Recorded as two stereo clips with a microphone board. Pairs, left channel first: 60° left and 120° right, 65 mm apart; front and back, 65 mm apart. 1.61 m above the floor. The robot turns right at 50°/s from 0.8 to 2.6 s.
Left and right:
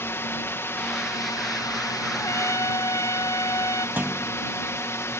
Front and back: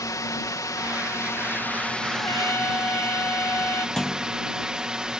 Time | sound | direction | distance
0.0 | a drone | 15° left | ?
2.1 | a trumpet | 20° left | ?
4.0 | a clunk | 80° right | ?